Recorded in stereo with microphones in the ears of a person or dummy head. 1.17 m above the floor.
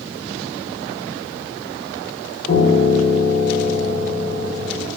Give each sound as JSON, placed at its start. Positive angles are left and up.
{"t": 2.5, "sound": "a piano", "side_deg": 20, "distance_m": 0.7}